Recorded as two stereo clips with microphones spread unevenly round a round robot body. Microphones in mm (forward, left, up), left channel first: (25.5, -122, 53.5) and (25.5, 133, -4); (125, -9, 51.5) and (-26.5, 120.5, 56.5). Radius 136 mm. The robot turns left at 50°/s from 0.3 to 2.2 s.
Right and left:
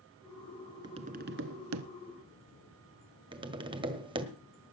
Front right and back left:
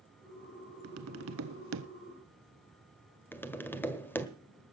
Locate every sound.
0.8 s tapping: 170° left, 0.8 m; by 1.9 s 115° left, 0.8 m
3.3 s tapping: 35° left, 1.6 m